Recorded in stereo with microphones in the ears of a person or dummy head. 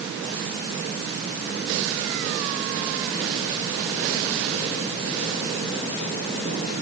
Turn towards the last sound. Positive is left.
No sound to turn to.